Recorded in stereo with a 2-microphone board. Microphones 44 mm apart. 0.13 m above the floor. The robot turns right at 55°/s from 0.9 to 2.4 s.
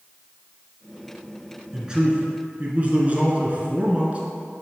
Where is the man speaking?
165° right, 1.4 m; by 4.2 s 125° right, 1.4 m.